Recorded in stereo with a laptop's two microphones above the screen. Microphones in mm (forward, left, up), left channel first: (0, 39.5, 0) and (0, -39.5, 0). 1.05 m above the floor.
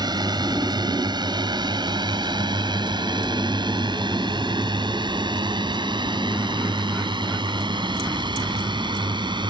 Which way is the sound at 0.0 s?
60° right (ahead or behind).